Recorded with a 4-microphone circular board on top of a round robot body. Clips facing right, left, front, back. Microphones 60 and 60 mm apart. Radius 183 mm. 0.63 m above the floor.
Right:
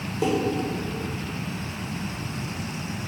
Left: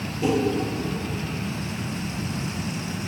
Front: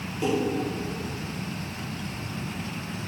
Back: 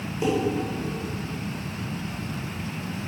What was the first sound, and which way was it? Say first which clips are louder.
Dishes clattering: left 1 dB, back 1 dB; 105° right.